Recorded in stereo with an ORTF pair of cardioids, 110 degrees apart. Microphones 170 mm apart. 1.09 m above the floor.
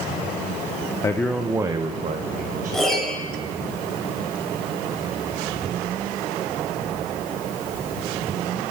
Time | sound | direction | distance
1.0 | a man speaking | 20° left | 0.5 m
2.7 | a piano | straight ahead | 2.5 m